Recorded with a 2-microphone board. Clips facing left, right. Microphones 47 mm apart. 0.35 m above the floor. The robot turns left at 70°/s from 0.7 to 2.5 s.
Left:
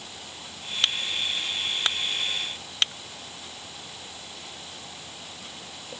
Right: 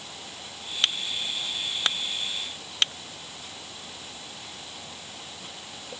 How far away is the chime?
No chime in this recording.